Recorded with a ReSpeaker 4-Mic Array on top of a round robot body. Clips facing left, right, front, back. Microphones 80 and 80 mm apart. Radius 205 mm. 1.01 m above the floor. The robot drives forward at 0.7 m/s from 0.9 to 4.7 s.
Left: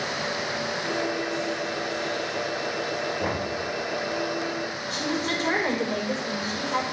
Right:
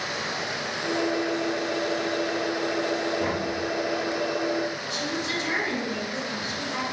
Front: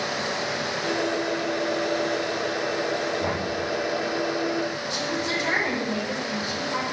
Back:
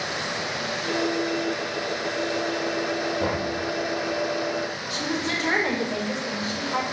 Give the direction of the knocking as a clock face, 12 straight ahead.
6 o'clock.